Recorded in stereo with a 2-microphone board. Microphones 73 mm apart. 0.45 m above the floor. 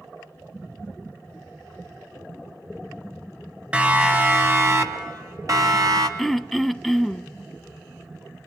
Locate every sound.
3.7 s a siren: 20° right (ahead or behind), 2 m; by 6.1 s 60° right (ahead or behind), 3 m
6.2 s throat clearing: centre (ahead or behind), 0.6 m